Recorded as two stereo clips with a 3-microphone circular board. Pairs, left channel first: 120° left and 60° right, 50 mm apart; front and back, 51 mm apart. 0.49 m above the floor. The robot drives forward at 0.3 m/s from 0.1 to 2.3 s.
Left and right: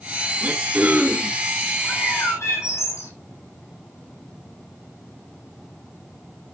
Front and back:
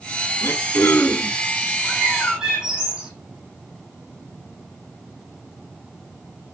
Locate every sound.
0.4 s throat clearing: 20° right, 1.4 m; by 1.4 s 25° right, 1.2 m
1.8 s a bird: 105° left, 5.5 m; by 3.1 s 110° left, 5.5 m